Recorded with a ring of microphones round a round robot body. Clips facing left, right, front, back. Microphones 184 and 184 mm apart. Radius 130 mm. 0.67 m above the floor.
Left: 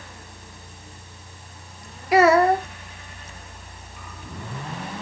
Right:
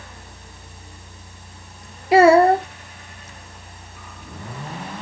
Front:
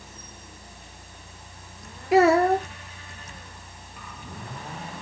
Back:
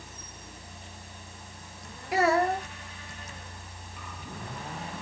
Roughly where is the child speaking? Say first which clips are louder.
Right 4 dB, front 7 dB; ahead right.